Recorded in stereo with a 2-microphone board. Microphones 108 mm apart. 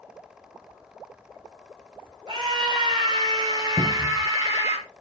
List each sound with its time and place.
2.3 s a scream: 45° right (ahead or behind), 4.5 m; by 4.8 s 25° right (ahead or behind), 4.5 m
3.8 s a cupboard door: 30° left (ahead or behind), 1.1 m